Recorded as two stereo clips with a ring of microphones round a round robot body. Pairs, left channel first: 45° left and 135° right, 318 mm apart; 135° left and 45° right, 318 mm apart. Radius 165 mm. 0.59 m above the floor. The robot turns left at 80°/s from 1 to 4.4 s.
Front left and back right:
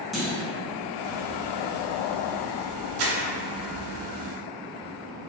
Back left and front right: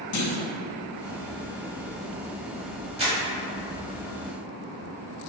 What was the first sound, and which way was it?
A clunk, 135° left.